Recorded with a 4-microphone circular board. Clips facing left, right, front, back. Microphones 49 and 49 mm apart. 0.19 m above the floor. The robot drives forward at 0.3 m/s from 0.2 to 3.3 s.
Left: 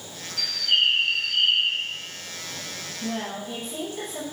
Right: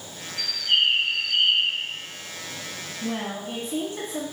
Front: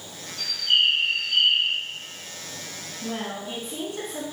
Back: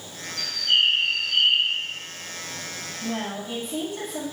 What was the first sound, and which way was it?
A bird, 50° right.